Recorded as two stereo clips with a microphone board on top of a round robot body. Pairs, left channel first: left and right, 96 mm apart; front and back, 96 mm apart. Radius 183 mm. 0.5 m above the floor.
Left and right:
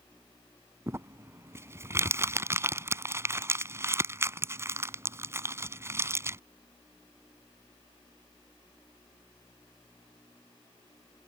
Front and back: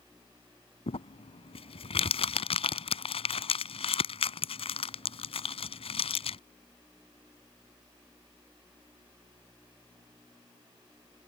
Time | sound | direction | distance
0.9 | crumpling | 25° right | ?